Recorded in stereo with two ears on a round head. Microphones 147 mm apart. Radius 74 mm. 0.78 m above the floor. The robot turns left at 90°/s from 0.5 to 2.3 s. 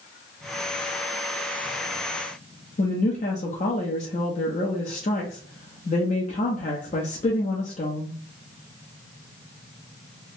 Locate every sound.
2.8 s a woman speaking: 45° left (ahead or behind), 0.7 m